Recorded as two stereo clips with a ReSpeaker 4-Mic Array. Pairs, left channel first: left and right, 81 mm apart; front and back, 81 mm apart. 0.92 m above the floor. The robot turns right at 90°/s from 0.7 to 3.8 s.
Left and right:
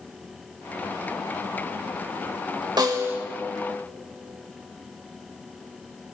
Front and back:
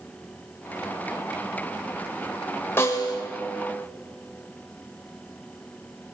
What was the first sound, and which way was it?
A snare drum, 60° right.